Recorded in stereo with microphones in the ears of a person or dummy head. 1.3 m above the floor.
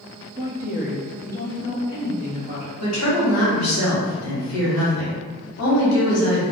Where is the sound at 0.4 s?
25° right (ahead or behind), 0.5 m; by 2.7 s 35° left (ahead or behind), 1.4 m.